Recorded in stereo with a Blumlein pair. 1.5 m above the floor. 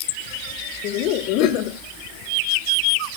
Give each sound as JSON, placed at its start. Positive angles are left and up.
{"t": 0.8, "sound": "laughter", "azimuth_deg": 40, "distance_m": 1.7}